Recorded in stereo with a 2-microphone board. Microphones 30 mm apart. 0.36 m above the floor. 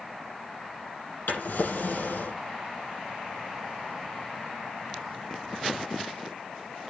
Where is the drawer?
80° left, 5 m.